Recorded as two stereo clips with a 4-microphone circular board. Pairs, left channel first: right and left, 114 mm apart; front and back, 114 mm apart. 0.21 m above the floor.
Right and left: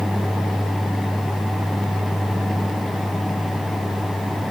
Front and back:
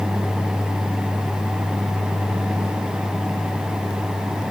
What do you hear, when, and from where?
Only background noise.